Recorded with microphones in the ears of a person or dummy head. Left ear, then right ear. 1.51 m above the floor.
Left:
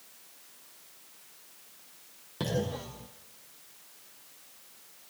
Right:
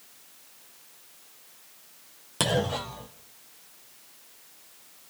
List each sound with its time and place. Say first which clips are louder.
2.4 s a clunk: right 7 dB; 20° right (ahead or behind), 0.6 m